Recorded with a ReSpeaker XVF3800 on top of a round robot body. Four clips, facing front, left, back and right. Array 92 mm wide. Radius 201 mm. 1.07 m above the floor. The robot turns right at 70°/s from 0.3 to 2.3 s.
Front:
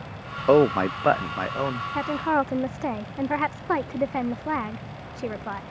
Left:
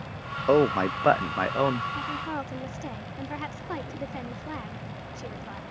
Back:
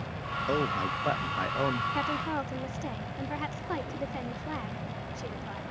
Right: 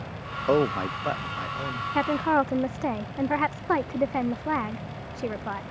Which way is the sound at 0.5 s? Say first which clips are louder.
Left 2 dB, front 12 dB; straight ahead.